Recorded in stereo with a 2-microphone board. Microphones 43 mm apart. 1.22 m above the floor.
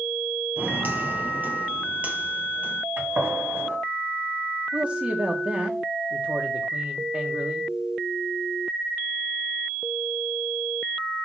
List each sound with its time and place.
0.6 s footsteps: 45° right (ahead or behind), 1.6 m; by 2.8 s 30° right (ahead or behind), 2.0 m
3.0 s a gunshot: 60° right (ahead or behind), 2.5 m
4.7 s a man speaking: 30° right (ahead or behind), 1.2 m